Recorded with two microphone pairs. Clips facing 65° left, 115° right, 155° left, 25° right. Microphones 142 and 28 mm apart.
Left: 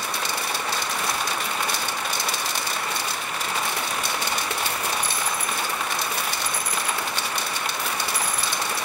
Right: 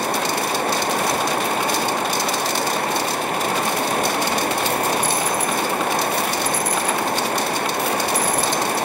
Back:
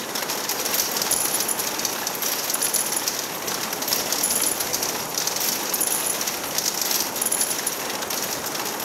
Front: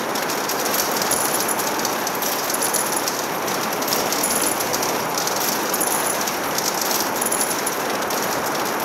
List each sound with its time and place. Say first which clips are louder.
0.0 s running water: right 8 dB, front 5 dB; 80° right